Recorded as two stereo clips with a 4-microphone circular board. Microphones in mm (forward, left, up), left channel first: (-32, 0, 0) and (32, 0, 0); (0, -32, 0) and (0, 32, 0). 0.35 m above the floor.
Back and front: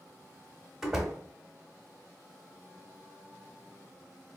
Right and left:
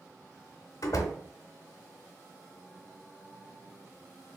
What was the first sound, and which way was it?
A door slam, 80° right.